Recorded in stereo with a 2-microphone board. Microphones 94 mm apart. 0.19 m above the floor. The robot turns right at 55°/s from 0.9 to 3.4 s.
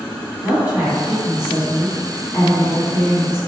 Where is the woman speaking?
20° right (ahead or behind), 1.6 m; by 3.4 s 30° left (ahead or behind), 1.6 m.